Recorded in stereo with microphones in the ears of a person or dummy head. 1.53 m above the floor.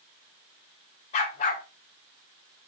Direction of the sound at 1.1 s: 45° left (ahead or behind).